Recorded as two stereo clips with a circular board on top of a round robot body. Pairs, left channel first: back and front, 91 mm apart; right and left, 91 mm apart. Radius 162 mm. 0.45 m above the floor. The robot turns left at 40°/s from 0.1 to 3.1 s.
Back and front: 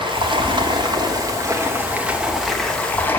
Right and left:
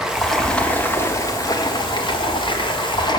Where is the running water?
5° left, 1.4 m; by 3.2 s 115° right, 1.4 m.